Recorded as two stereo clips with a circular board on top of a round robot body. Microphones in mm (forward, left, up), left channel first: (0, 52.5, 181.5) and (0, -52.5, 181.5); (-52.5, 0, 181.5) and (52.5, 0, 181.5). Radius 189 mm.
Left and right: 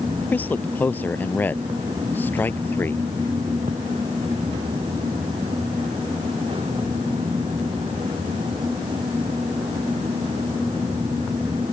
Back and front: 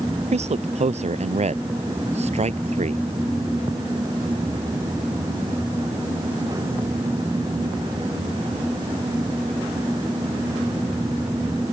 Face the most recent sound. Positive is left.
turn(degrees=15)